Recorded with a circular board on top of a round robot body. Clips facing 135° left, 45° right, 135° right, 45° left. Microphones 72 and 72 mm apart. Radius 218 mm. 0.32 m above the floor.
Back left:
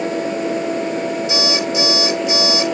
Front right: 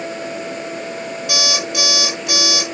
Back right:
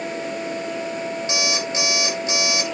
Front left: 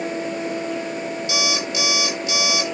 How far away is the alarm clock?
About 6 m.